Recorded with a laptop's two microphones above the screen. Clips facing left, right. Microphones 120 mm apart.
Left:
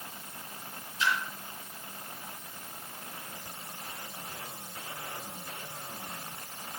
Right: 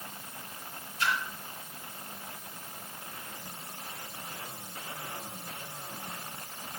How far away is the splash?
About 3.5 m.